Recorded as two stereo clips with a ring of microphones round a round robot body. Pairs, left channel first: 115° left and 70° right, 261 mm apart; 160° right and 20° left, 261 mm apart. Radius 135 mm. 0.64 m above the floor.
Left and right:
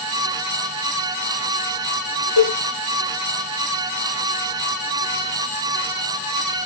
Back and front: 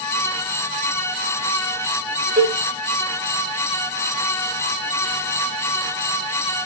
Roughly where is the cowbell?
Behind left.